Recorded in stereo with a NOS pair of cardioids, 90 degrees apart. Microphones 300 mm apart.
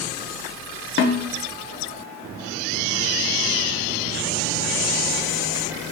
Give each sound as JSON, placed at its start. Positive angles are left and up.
{"t": 1.0, "sound": "a snare drum", "azimuth_deg": 40, "distance_m": 0.6}